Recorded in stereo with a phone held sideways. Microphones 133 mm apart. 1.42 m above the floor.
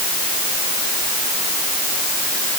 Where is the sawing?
No sawing in this recording.